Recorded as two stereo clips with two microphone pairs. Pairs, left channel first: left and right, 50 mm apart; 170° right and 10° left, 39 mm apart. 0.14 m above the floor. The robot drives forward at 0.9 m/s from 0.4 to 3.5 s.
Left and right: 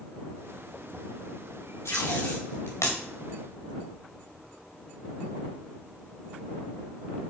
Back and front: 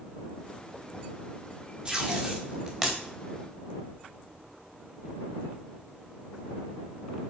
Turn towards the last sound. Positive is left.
turn(degrees=105)